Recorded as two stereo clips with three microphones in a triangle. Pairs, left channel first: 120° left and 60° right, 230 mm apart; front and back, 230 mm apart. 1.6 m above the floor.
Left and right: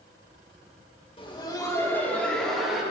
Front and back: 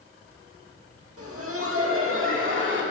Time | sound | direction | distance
1.2 | laughter | 170° right | 2.5 m